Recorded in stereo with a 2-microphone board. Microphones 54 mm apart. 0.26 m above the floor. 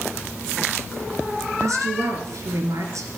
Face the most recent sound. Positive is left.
turn(degrees=-75)  # may be behind; listen again after turning